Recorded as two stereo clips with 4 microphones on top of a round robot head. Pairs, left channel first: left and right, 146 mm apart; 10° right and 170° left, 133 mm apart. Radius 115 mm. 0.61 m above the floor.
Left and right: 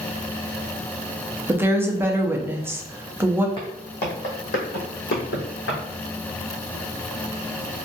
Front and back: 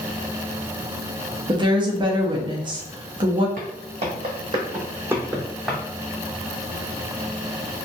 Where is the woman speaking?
160° right, 0.7 m.